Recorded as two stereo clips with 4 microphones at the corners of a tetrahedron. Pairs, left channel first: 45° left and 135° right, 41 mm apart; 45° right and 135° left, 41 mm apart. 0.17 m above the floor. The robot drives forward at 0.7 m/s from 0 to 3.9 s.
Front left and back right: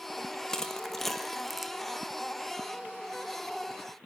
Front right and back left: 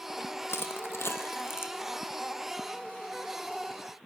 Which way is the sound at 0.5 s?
30° right.